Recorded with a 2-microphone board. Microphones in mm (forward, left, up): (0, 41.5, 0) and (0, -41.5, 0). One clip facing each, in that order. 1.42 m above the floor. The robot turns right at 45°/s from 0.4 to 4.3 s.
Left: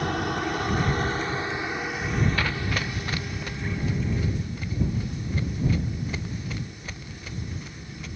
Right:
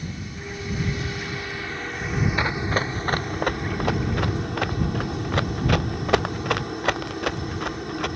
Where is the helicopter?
105° left; by 8.2 s 80° right.